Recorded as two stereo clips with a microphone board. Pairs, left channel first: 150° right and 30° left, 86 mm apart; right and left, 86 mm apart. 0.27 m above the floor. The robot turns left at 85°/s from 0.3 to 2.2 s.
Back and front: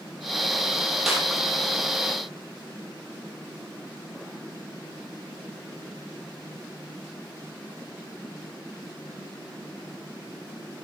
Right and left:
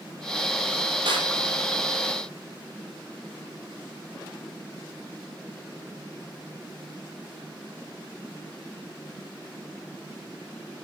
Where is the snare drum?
115° left, 5.5 m; by 1.3 s 100° left, 5.5 m.